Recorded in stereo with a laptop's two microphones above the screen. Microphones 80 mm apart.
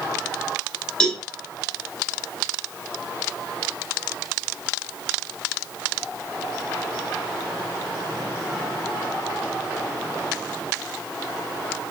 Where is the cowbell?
10° left (ahead or behind), 3.5 m.